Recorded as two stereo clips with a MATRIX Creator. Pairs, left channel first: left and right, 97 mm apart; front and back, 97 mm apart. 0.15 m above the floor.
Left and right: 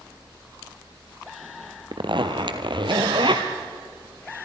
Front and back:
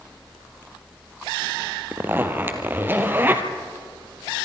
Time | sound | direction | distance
1.9 | a zipper | 115° right | 1.7 m